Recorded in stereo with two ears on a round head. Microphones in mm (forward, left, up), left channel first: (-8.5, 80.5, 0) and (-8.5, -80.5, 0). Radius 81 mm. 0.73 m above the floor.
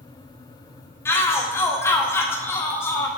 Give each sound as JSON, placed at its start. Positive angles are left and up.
{"t": 1.1, "sound": "a shout", "side_deg": 15, "distance_m": 0.9}